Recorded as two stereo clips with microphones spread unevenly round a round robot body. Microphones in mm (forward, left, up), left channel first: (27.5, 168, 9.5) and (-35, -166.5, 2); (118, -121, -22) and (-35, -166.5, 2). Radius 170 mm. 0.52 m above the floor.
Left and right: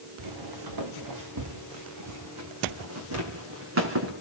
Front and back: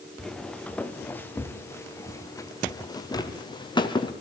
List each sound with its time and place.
0.2 s footsteps: 70° right, 3.5 m; by 4.1 s 45° right, 4.5 m